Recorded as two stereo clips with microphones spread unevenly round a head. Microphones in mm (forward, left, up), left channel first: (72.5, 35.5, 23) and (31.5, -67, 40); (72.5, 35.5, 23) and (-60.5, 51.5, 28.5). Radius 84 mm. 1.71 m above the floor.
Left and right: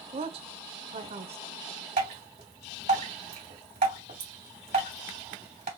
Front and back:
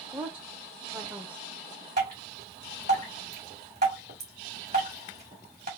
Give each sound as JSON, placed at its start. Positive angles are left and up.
{"t": 0.1, "sound": "a woman speaking", "azimuth_deg": -105, "distance_m": 0.7}
{"t": 2.0, "sound": "dripping", "azimuth_deg": -135, "distance_m": 2.5}